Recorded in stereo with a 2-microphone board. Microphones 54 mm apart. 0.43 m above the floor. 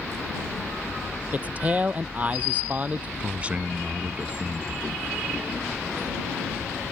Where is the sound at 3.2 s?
25° right (ahead or behind).